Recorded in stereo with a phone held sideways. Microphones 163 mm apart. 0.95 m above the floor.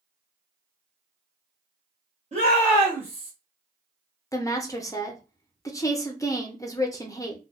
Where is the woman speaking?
20° left (ahead or behind), 0.6 m.